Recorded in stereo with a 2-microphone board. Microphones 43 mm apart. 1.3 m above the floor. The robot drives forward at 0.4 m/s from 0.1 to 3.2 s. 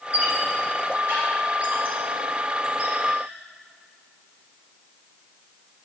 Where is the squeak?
40° right (ahead or behind), 3 m; by 3.2 s 30° right (ahead or behind), 4 m.